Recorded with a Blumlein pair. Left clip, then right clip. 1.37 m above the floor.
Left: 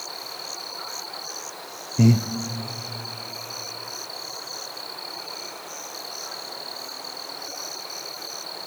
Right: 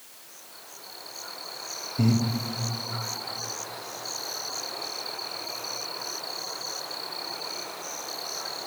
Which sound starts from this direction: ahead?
Breathing, at 2.0 s.